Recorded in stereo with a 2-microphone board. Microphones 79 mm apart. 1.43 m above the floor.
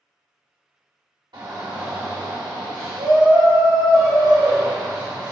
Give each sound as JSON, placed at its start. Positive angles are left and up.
{"t": 1.3, "sound": "a shout", "side_deg": -80, "distance_m": 1.0}